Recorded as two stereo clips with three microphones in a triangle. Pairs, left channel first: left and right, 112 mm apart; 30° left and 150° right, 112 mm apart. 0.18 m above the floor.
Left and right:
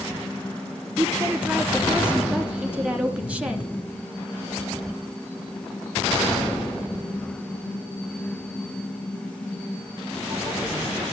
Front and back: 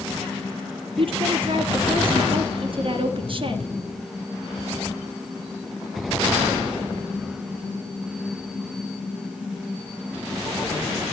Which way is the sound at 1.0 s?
165° right.